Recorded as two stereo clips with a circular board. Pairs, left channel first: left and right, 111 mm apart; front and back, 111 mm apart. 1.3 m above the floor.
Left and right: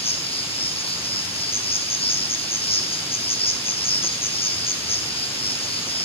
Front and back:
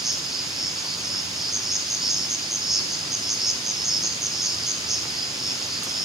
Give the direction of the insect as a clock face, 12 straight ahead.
9 o'clock.